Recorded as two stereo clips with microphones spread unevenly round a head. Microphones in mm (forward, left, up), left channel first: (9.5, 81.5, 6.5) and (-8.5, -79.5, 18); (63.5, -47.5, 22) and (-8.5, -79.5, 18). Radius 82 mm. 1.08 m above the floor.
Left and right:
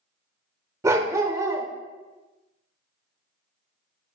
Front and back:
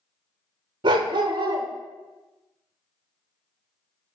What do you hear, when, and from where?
0.8 s a dog barking: 165° right, 1.1 m